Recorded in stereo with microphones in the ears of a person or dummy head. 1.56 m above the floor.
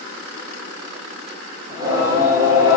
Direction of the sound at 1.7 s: 15° right (ahead or behind).